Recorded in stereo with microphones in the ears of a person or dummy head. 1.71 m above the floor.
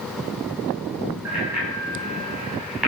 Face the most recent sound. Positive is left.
turn(degrees=0)  # may be behind; listen again after turning